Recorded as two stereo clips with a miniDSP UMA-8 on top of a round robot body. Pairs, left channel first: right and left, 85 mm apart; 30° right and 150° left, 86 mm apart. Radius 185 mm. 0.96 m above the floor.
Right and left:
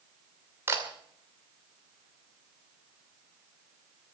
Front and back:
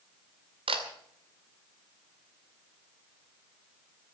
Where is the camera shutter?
155° left, 2 m.